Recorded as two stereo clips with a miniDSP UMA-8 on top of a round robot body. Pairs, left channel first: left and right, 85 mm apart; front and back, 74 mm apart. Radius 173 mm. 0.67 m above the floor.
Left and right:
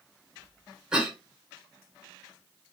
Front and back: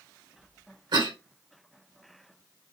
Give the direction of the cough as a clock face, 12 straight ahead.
6 o'clock.